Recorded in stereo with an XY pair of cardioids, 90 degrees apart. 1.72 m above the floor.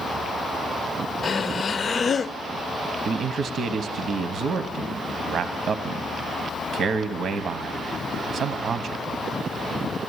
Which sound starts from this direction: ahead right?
A man speaking, at 3.0 s.